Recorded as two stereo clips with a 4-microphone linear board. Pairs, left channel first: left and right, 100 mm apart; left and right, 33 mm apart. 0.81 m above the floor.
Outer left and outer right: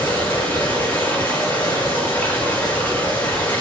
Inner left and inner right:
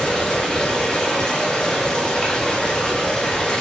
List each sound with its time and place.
0.0 s running water: 20° left (ahead or behind), 8 m